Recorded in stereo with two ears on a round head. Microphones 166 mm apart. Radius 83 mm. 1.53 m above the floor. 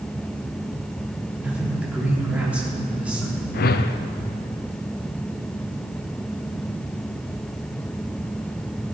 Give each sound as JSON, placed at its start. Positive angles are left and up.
{"t": 1.4, "sound": "a man speaking", "side_deg": -5, "distance_m": 3.5}
{"t": 3.5, "sound": "a whoosh", "side_deg": 55, "distance_m": 0.7}